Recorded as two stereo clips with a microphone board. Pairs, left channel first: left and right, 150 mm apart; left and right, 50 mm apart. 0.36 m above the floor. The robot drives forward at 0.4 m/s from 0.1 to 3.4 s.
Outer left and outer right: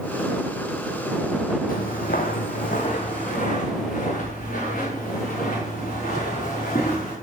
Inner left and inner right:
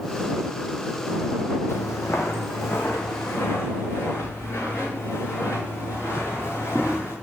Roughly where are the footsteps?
Left.